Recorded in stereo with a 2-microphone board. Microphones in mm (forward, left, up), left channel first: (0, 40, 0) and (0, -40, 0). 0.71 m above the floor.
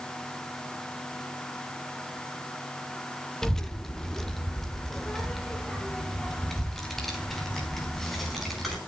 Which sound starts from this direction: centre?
A child speaking, at 3.4 s.